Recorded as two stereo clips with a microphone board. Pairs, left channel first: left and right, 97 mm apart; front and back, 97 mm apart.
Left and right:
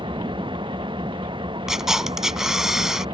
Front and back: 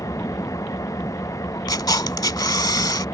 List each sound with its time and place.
0.0 s an engine running: 55° right
1.7 s a camera shutter: 5° right